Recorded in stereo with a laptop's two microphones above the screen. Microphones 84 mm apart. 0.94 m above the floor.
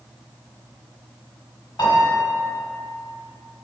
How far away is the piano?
About 1.0 m.